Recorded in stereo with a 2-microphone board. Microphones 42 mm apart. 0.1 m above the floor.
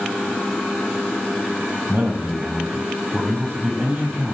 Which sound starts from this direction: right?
A man speaking, at 1.9 s.